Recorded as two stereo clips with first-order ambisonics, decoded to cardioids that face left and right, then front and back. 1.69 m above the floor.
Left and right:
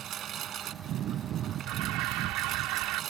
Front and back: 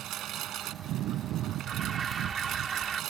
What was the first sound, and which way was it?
A lawn mower, 140° right.